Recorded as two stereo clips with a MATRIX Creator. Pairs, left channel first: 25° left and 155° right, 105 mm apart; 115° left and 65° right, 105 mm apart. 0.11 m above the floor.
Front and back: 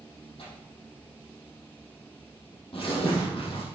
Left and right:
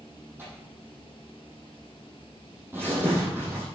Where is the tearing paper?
Straight ahead, 5 m.